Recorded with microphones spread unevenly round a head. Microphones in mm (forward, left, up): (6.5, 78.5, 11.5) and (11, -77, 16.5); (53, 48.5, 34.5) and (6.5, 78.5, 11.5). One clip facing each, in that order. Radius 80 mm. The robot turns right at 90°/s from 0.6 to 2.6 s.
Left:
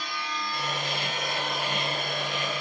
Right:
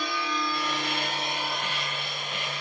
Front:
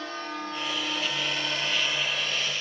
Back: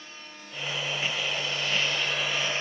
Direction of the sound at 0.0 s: 80° right.